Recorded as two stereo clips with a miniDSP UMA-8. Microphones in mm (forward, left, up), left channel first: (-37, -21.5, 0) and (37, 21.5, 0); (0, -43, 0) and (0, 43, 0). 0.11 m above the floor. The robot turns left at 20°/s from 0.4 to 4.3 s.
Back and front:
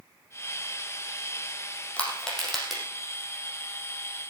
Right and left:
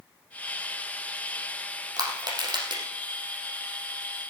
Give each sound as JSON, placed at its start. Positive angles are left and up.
{"t": 2.0, "sound": "crushing", "azimuth_deg": 130, "distance_m": 4.5}